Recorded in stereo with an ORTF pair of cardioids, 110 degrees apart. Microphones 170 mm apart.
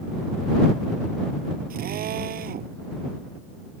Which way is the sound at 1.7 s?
55° right.